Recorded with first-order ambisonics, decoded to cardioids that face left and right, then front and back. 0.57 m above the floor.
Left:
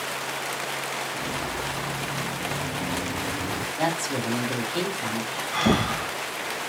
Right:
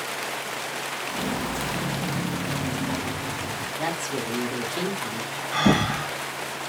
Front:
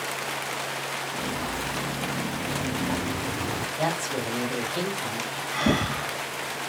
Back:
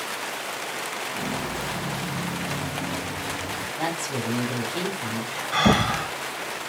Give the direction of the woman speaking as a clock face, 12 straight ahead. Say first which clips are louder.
Left 2 dB, front 1 dB; 8 o'clock.